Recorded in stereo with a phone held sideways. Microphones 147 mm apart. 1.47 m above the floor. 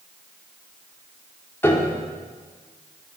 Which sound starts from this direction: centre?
A piano, at 1.6 s.